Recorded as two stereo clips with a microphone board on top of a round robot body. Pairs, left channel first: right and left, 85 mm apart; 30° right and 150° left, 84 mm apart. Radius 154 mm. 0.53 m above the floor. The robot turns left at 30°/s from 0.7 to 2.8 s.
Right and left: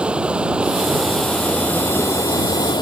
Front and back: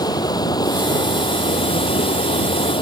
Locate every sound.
0.0 s running water: 10° left; by 2.8 s 50° right